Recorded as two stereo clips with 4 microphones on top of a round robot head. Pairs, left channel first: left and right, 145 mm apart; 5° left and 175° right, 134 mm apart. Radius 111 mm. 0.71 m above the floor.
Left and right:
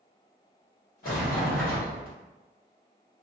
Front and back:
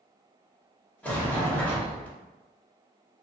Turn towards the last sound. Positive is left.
turn(degrees=85)